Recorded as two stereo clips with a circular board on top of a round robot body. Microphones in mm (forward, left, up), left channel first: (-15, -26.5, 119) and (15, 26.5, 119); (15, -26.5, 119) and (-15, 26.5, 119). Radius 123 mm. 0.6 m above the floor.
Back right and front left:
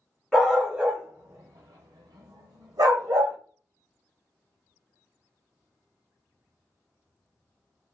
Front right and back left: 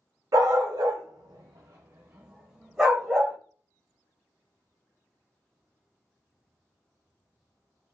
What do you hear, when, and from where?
0.3 s a dog barking: 150° left, 0.8 m; by 3.4 s 25° left, 1.1 m